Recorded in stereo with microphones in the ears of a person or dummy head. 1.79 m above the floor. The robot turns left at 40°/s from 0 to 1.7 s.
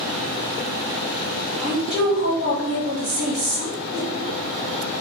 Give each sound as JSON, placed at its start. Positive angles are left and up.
{"t": 1.6, "sound": "a woman speaking", "side_deg": -45, "distance_m": 1.1}
{"t": 3.9, "sound": "a whoosh", "side_deg": -10, "distance_m": 1.2}